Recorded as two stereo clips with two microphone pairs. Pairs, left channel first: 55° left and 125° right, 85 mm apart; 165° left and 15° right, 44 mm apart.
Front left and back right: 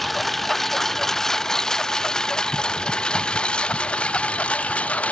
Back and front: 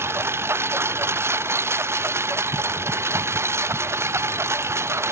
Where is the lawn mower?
35° right; by 5.1 s 20° right.